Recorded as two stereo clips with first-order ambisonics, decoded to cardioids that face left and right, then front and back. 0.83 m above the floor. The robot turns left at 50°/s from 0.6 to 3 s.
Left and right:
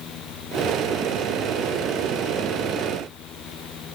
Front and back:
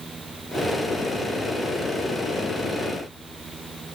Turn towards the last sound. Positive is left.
No sound to turn to.